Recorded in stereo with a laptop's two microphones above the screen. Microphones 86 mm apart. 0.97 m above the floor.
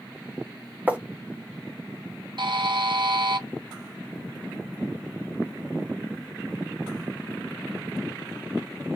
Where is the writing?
20° right (ahead or behind), 1.6 m.